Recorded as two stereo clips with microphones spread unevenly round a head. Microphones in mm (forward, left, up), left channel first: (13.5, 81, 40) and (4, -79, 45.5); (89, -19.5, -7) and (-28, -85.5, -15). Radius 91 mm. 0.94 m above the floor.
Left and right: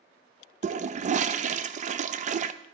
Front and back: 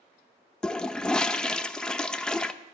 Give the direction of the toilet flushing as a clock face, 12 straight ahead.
2 o'clock.